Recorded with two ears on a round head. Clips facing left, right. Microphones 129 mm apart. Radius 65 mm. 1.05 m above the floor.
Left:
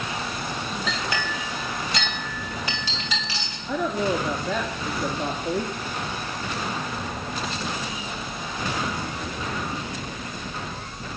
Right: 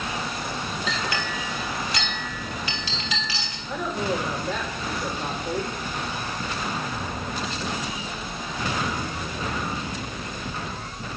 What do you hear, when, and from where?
0.9 s a clink: 80° left, 3.5 m
3.7 s a woman speaking: 70° left (ahead or behind), 2.0 m